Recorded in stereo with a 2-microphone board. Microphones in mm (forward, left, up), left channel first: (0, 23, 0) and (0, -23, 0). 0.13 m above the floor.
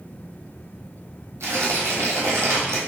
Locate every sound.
1.4 s tearing paper: 80° right, 1.1 m